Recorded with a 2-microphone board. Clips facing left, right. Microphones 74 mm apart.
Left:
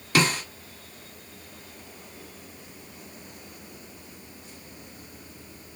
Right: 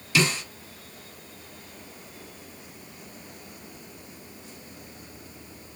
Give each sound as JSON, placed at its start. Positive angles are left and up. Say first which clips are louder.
{"t": 0.1, "sound": "a snare drum", "louder": "left 2 dB", "side_deg": 50, "distance_m": 1.4}